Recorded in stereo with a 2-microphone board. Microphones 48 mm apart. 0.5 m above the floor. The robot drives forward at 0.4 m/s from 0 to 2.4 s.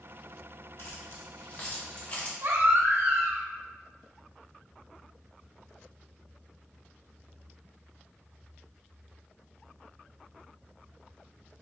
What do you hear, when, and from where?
0.8 s keys jangling: 60° left (ahead or behind), 0.8 m; by 2.3 s 35° left (ahead or behind), 1.2 m
2.4 s a baby crying: 80° right, 0.9 m